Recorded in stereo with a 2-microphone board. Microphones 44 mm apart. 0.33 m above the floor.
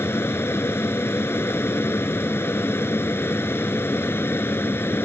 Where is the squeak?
I don't hear a squeak.